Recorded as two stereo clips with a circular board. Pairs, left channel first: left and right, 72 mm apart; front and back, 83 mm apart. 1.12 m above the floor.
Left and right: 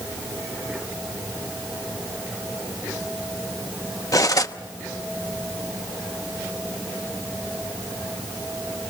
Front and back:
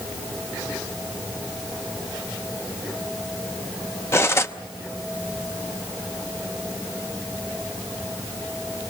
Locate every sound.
4.1 s cutlery clinking: 55° left, 0.7 m